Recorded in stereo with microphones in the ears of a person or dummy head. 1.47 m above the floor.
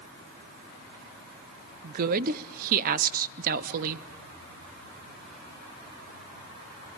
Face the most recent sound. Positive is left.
turn(degrees=-50)  # may be behind; listen again after turning